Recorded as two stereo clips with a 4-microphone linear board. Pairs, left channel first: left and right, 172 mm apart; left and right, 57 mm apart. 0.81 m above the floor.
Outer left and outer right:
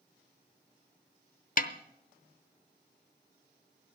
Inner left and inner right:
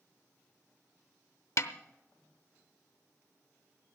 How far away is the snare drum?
About 0.7 m.